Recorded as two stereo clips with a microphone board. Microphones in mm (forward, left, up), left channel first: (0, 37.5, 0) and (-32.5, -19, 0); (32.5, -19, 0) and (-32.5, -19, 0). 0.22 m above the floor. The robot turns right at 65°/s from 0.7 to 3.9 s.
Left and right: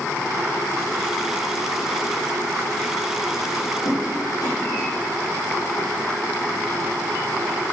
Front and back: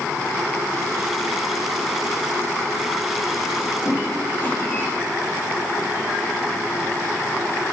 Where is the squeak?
45° left, 8 m; by 4.8 s 50° left, 8 m.